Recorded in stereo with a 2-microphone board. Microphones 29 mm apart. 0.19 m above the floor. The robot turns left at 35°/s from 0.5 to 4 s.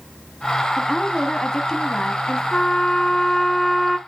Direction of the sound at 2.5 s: 50° left.